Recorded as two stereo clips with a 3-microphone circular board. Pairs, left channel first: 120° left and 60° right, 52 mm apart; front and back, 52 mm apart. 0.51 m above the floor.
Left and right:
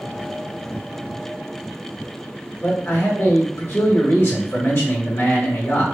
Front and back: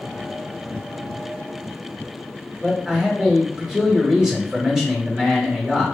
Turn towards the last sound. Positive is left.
turn(degrees=105)